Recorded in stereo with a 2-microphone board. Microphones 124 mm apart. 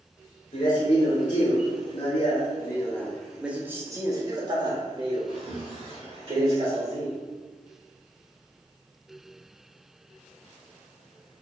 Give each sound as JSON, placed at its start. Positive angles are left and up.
{"t": 0.5, "sound": "a man speaking", "side_deg": 75, "distance_m": 1.7}